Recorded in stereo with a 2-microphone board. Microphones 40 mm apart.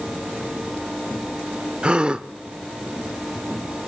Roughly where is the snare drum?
I don't hear a snare drum.